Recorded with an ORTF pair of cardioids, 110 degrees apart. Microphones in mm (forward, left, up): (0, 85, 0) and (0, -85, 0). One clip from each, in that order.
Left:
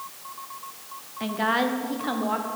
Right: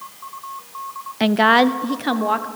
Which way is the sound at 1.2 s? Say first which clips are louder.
Right 10 dB; 60° right.